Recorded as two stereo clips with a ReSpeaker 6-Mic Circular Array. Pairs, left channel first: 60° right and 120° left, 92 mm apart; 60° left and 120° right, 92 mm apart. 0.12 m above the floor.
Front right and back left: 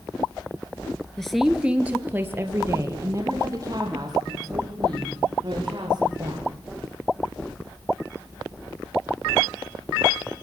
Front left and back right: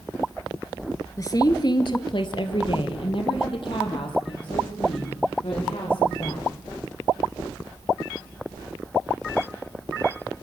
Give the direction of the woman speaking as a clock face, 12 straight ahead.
11 o'clock.